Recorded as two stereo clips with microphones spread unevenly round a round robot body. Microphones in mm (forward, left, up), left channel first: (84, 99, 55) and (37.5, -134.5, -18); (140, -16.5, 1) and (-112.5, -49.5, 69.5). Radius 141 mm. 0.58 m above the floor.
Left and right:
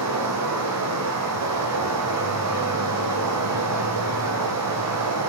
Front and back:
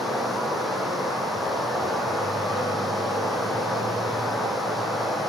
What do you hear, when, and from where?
0.0 s running water: 85° right, 3.5 m